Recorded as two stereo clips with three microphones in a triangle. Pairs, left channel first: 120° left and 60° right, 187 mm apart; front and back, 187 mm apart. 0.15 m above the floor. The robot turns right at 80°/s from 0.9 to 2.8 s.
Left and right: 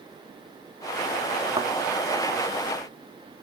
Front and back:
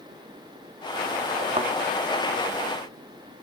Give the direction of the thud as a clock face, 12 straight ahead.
4 o'clock.